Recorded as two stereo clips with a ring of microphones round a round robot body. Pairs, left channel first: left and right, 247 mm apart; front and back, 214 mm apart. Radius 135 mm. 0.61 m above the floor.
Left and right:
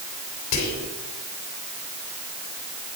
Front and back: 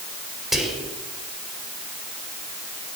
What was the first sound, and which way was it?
Whispering, 90° left.